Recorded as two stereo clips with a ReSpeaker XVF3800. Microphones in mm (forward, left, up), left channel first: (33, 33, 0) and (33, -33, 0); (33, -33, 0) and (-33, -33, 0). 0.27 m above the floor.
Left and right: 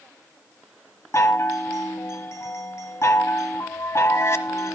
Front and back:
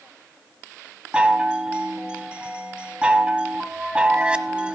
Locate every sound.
1.1 s a chime: 115° left, 1.1 m